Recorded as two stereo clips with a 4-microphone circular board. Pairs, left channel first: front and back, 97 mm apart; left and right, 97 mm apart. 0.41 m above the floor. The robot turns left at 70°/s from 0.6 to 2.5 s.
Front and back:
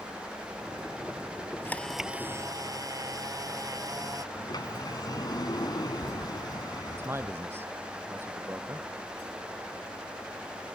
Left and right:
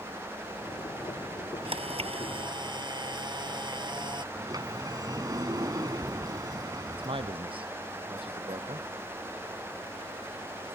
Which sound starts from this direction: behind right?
A man speaking, at 6.9 s.